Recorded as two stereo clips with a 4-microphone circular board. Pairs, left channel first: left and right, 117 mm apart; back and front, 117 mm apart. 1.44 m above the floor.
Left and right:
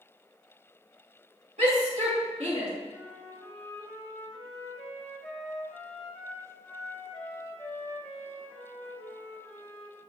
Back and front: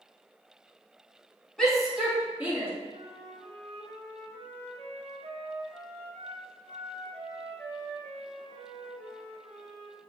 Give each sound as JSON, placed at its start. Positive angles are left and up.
{"t": 1.6, "sound": "a shout", "azimuth_deg": -95, "distance_m": 3.0}
{"t": 2.9, "sound": "a flute", "azimuth_deg": 10, "distance_m": 1.2}